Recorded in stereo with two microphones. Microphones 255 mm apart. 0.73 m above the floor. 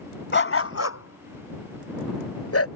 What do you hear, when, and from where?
0.3 s a dog barking: 45° left (ahead or behind); by 2.7 s 60° left (ahead or behind)